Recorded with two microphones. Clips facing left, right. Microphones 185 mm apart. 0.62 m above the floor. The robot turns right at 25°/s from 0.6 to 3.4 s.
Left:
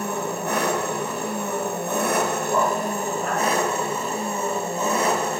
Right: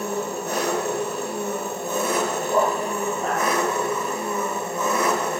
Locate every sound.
0.0 s an engine running: 80° left, 1.8 m; by 5.4 s 150° left, 1.8 m
2.5 s a dog barking: 15° right (ahead or behind), 3.5 m; by 3.4 s 35° right (ahead or behind), 3.5 m